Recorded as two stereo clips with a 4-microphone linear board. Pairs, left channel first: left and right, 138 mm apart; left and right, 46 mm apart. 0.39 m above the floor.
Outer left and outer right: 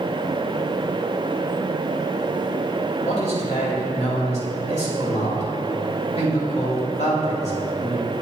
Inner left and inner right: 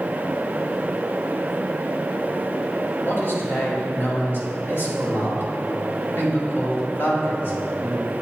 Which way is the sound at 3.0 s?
55° left (ahead or behind).